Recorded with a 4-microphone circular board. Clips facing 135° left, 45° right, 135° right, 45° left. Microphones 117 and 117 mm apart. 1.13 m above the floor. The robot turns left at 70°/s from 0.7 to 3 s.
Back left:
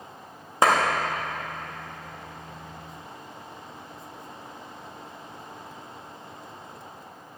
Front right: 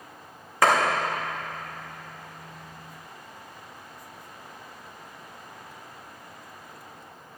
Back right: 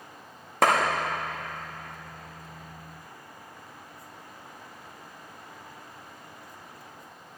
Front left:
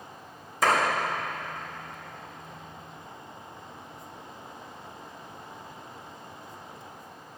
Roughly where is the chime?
I don't hear a chime.